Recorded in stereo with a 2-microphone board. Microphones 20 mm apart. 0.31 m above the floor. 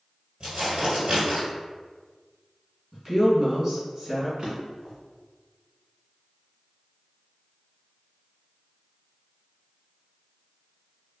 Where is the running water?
No running water in this recording.